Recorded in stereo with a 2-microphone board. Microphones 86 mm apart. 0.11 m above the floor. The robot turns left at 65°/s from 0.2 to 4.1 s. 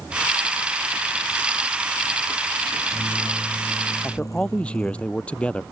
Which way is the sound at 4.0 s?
20° left (ahead or behind).